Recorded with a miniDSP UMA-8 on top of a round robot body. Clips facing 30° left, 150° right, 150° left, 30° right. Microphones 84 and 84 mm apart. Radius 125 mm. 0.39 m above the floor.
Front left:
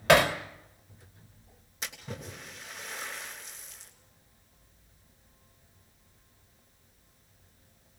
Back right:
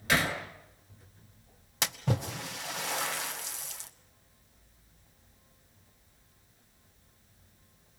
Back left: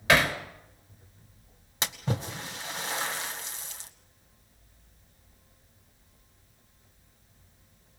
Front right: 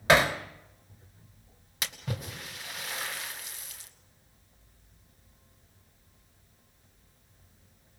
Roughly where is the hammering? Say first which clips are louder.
Front left 8 dB, front right 1 dB; ahead left.